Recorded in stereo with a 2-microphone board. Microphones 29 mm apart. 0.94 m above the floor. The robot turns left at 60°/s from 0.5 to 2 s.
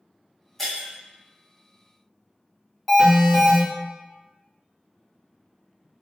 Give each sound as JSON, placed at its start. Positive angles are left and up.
{"t": 0.6, "sound": "breaking glass", "side_deg": 10, "distance_m": 1.6}
{"t": 2.9, "sound": "an alarm", "side_deg": -5, "distance_m": 1.7}